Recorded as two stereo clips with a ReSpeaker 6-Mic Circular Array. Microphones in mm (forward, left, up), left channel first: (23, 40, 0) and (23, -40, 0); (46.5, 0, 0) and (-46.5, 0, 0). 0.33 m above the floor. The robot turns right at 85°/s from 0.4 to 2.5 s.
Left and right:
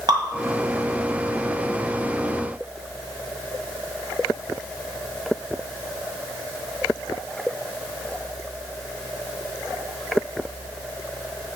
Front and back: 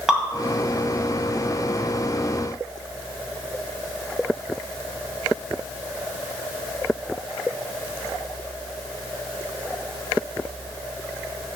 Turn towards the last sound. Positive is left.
turn(degrees=80)